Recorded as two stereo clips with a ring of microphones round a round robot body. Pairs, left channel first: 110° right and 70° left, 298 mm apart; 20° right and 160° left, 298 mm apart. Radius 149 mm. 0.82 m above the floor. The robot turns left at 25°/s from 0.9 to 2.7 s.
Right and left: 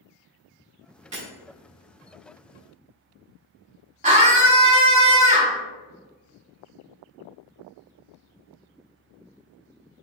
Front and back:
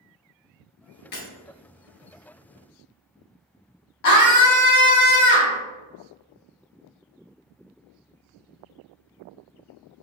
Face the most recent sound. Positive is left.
turn(degrees=0)